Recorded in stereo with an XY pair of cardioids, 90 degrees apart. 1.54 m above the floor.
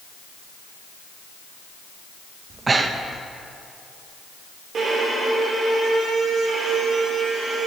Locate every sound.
2.5 s breathing: 35° right, 0.7 m
4.7 s a violin: 65° right, 3.5 m